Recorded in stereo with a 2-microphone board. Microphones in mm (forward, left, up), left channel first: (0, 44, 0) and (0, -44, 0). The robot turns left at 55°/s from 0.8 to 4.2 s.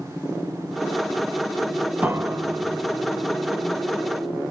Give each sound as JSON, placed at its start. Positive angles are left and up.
{"t": 2.0, "sound": "a piano", "azimuth_deg": -25, "distance_m": 0.5}